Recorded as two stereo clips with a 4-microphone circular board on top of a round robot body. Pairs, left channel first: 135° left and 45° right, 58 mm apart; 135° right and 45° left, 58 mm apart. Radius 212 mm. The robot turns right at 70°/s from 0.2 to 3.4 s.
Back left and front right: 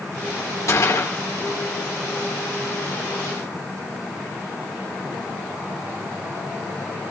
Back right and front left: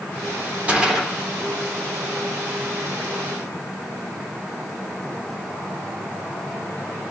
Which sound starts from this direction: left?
A gunshot, at 0.7 s.